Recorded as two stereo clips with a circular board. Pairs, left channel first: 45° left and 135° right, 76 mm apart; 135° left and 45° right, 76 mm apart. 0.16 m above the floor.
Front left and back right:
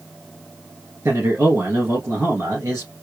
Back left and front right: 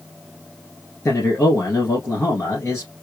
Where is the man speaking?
Straight behind, 2 m.